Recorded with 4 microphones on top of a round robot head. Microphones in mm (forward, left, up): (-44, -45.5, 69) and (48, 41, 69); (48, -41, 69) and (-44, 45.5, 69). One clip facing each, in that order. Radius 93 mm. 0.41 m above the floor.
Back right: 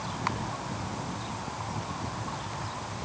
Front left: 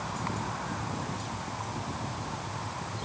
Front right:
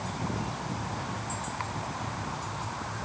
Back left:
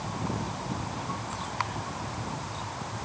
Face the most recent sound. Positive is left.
No sound to turn to.